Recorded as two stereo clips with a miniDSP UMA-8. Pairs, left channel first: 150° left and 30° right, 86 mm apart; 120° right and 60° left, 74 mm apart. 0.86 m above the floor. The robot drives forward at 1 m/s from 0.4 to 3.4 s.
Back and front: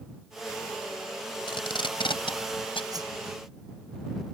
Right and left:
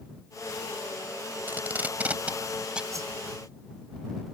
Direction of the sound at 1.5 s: 125° left.